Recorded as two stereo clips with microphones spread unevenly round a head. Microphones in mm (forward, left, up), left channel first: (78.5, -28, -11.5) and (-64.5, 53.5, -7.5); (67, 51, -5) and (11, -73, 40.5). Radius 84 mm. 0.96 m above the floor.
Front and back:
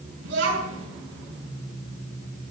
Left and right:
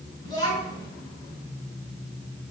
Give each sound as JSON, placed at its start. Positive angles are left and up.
{"t": 0.2, "sound": "a child speaking", "azimuth_deg": 135, "distance_m": 6.5}